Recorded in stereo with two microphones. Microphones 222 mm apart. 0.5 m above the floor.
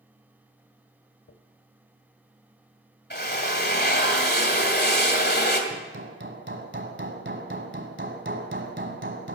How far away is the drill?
About 2 m.